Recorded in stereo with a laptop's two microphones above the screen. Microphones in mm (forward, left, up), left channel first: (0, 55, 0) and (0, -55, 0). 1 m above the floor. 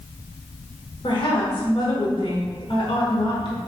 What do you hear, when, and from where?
1.0 s a woman speaking: 45° left (ahead or behind), 1.2 m